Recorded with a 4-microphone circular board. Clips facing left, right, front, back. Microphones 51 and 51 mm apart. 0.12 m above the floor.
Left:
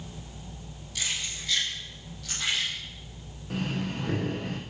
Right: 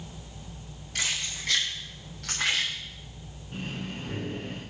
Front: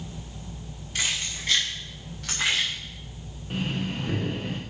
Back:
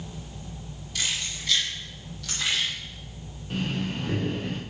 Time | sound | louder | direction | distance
0.9 | keys jangling | right 2 dB, front 2 dB | 50° right | 8.5 m
3.5 | breathing | left 5 dB, even | 85° left | 5 m